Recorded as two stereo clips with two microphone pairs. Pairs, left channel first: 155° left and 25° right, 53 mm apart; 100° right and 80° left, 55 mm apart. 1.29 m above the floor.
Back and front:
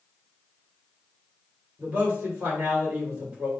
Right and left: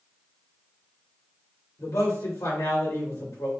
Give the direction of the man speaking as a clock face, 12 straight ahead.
3 o'clock.